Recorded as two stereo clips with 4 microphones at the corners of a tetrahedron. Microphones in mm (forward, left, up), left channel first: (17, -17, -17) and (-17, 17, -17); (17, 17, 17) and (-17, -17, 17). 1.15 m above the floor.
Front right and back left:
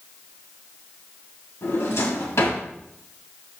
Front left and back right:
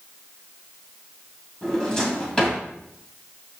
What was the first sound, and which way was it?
A drawer, 30° right.